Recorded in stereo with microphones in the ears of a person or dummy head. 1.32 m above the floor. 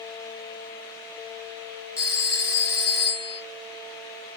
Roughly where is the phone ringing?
Centre.